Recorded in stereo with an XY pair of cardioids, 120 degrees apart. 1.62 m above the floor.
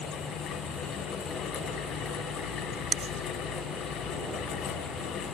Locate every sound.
0.0 s a fan: 65° left, 1.8 m